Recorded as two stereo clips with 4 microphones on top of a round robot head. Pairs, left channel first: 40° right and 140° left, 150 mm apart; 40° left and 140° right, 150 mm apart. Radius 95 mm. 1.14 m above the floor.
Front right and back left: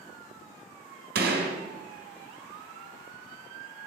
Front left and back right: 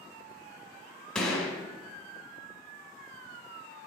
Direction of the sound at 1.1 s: 120° left.